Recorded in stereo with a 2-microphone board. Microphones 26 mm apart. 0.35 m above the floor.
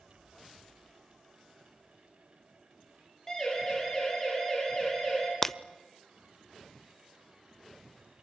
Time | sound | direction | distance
3.3 | a siren | 15° left (ahead or behind) | 10 m
5.4 | breaking glass | 10° left (ahead or behind) | 0.5 m